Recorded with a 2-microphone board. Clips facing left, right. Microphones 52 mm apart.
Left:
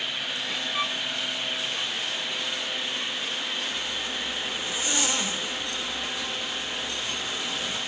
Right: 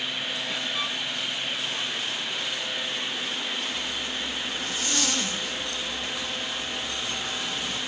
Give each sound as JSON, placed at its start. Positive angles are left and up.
{"t": 0.7, "sound": "a violin", "side_deg": 20, "distance_m": 0.7}
{"t": 3.7, "sound": "a zipper", "side_deg": 15, "distance_m": 1.3}